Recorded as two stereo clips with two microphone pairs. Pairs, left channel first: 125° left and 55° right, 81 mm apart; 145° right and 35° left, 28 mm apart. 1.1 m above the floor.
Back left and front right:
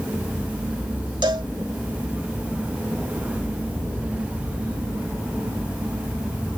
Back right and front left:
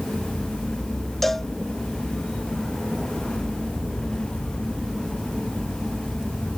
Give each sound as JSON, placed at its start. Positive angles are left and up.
{"t": 1.2, "sound": "a cowbell", "azimuth_deg": -65}